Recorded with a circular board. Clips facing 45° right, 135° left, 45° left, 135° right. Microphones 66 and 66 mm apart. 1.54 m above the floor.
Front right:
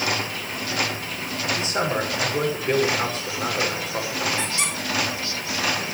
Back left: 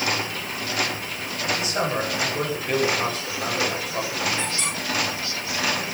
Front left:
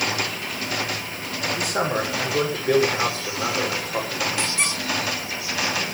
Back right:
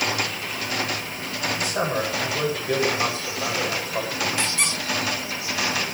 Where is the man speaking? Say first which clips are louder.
Front right 1 dB, front left 2 dB; 15° left, 6.5 m.